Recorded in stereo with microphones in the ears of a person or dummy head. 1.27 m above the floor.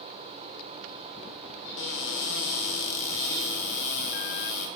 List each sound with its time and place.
1.8 s a cupboard door: 65° left (ahead or behind), 0.7 m